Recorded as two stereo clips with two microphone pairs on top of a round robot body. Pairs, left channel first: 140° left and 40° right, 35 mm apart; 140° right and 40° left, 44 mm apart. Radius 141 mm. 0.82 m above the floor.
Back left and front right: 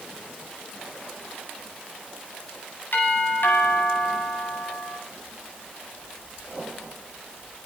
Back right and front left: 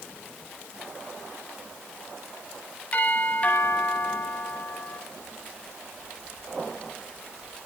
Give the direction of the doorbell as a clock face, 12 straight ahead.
7 o'clock.